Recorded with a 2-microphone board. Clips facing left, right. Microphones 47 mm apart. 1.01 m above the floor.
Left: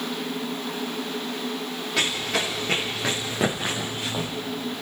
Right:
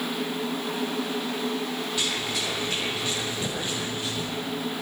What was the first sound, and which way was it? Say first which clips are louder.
Running footsteps: left 7 dB; 85° left.